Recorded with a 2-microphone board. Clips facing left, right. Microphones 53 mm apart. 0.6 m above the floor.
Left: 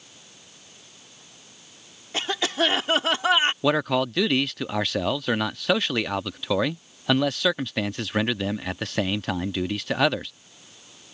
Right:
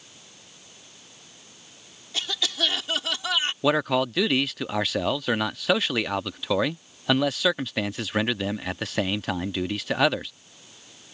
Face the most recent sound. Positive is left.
turn(degrees=0)  # may be behind; listen again after turning